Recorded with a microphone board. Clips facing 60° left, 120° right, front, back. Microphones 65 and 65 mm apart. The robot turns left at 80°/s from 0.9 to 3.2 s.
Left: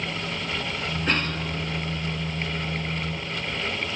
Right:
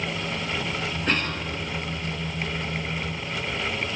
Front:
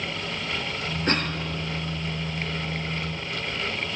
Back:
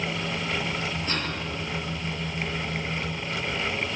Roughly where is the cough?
Ahead right.